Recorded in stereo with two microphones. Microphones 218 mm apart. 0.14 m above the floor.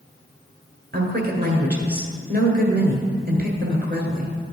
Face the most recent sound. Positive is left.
turn(degrees=-50)  # may be behind; listen again after turning